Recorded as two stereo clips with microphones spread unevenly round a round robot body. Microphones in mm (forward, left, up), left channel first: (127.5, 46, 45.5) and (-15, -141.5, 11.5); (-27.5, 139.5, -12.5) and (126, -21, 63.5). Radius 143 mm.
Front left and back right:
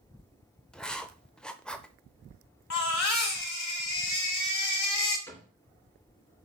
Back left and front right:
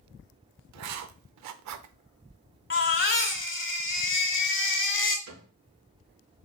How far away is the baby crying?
About 1.6 m.